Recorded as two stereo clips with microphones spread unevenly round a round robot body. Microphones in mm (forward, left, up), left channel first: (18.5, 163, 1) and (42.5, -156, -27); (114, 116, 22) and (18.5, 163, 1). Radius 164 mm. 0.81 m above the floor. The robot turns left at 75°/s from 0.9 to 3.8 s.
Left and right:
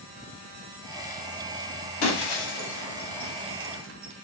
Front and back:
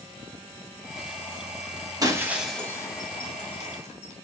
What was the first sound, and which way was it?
Breaking glass, 100° left.